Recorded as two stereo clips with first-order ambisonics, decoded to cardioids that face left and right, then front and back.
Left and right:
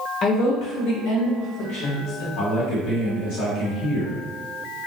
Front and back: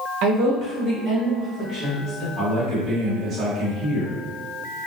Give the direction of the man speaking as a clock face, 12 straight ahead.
9 o'clock.